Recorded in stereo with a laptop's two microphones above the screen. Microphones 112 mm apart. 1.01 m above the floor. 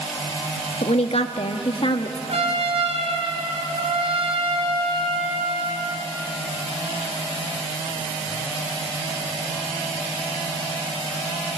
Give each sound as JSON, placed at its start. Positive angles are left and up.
{"t": 0.8, "sound": "a woman speaking", "side_deg": 70, "distance_m": 1.4}
{"t": 2.3, "sound": "a trumpet", "side_deg": -60, "distance_m": 4.5}